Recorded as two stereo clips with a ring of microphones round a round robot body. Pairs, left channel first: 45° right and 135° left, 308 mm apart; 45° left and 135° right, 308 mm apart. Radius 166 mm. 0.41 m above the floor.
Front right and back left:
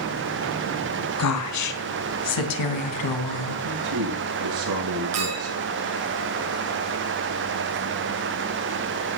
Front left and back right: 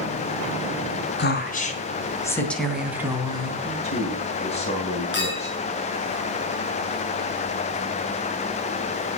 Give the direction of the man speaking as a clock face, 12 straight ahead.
8 o'clock.